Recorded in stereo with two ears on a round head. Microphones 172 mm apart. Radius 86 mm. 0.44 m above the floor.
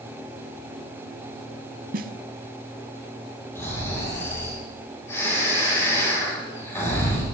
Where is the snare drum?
50° right (ahead or behind), 0.7 m.